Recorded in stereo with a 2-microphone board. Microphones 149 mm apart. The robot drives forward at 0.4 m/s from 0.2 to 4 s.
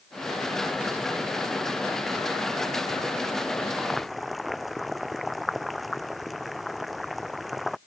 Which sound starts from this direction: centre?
Boiling, at 3.7 s.